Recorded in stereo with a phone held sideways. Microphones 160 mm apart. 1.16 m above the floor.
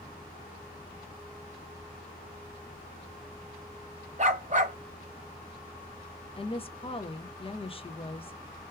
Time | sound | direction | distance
4.2 | a dog barking | 45° right (ahead or behind) | 0.8 m
6.4 | a woman speaking | 35° left (ahead or behind) | 0.5 m